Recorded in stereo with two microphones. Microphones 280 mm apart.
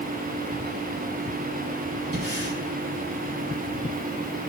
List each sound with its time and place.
2.1 s breathing: 55° right (ahead or behind), 2 m